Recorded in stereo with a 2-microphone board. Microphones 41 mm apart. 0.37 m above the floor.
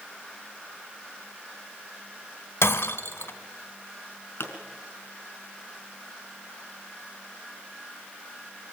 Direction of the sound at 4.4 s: 70° left (ahead or behind).